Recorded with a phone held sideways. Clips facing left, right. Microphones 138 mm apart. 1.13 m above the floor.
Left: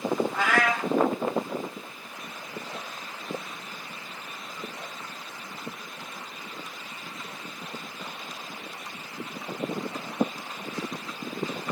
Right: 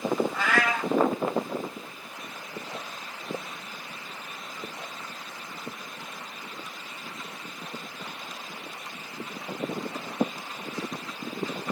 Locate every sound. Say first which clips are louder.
0.3 s a cat meowing: left 1 dB; 60° left (ahead or behind), 1.6 m